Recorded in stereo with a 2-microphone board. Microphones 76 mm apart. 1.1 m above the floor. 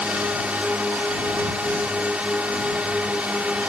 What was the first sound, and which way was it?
A drone, 15° right (ahead or behind).